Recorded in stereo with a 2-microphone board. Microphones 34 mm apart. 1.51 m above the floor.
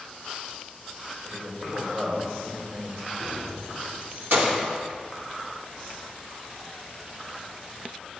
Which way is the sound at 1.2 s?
65° right (ahead or behind).